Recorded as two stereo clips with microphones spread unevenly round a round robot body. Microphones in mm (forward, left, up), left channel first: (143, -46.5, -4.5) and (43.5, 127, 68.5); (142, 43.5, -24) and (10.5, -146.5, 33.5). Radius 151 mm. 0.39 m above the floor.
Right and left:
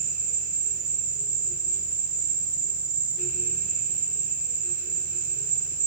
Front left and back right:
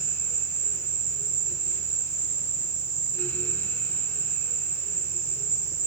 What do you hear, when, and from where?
0.0 s an insect: 165° left, 2.5 m